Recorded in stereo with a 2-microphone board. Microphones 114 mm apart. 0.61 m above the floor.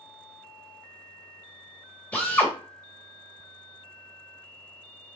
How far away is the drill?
About 1.5 m.